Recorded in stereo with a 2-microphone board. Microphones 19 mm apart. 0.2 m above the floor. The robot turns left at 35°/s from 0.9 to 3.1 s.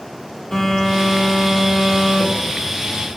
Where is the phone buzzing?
55° left, 2.5 m; by 3.1 s 20° right, 2.5 m.